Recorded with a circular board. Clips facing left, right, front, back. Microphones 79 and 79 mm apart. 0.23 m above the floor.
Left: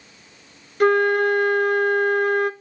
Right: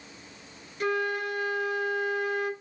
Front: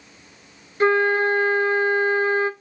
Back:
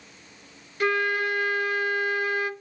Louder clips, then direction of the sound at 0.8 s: Left 12 dB, front 7 dB; 60° left.